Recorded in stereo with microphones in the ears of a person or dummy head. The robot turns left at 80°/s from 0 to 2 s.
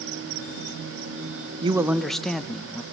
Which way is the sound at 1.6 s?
150° right.